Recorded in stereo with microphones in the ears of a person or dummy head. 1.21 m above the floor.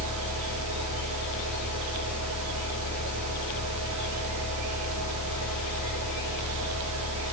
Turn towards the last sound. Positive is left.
turn(degrees=-75)  # may be behind; listen again after turning